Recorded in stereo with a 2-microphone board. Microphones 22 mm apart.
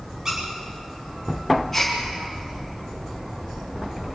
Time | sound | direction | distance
0.2 | a squeak | 20° right (ahead or behind) | 10 m
1.7 | a gasp | 15° left (ahead or behind) | 7 m